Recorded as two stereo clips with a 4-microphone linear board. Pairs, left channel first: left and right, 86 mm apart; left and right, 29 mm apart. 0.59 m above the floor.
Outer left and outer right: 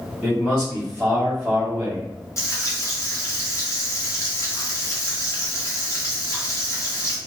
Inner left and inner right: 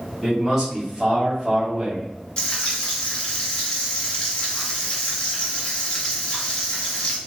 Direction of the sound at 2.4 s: 35° left (ahead or behind).